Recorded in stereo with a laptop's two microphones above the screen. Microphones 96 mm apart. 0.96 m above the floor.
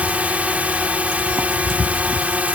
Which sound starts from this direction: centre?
A drone, at 0.0 s.